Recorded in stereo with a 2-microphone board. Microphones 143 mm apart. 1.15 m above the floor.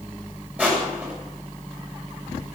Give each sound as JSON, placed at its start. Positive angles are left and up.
{"t": 0.6, "sound": "crushing", "side_deg": -10, "distance_m": 7.0}